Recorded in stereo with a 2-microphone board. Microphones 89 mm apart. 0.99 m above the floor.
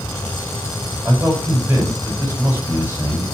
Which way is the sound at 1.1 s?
20° right (ahead or behind).